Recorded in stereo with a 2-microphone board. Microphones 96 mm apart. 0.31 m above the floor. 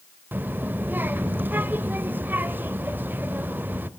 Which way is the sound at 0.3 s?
20° right (ahead or behind).